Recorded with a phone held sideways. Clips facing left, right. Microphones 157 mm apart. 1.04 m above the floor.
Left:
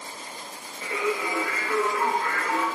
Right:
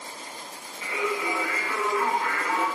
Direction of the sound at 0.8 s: 55° left (ahead or behind).